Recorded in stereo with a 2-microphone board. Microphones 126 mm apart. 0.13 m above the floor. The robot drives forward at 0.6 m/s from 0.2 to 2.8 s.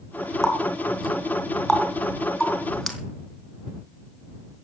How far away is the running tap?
About 5 m.